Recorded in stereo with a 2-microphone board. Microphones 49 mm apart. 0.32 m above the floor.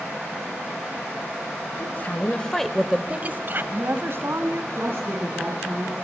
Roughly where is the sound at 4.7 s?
Right.